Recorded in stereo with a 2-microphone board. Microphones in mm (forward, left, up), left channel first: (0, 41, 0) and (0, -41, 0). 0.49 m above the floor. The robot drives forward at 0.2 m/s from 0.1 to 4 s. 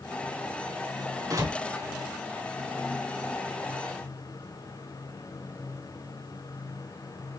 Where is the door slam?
45° right (ahead or behind), 3 m.